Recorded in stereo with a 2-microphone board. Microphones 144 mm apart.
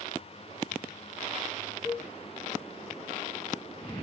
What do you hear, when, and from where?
1.8 s a cowbell: 40° right (ahead or behind), 2.5 m